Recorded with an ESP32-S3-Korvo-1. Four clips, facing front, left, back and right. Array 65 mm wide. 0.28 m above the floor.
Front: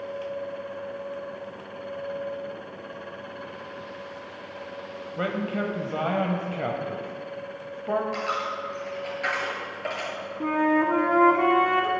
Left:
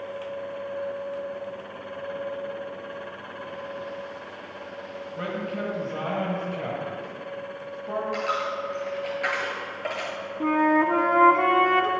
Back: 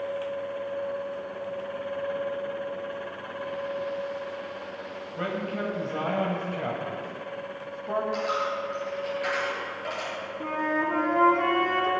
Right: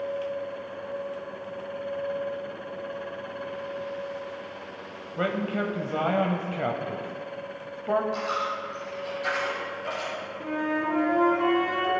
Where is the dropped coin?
60° left, 2.5 m.